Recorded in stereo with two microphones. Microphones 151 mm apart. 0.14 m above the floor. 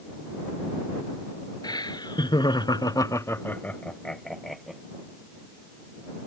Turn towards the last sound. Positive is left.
turn(degrees=0)  # may be behind; listen again after turning